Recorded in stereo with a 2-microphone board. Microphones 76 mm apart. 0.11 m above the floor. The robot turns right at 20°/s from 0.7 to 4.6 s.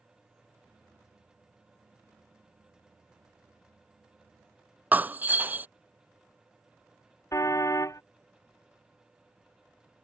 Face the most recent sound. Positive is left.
turn(degrees=45)  # may be behind; listen again after turning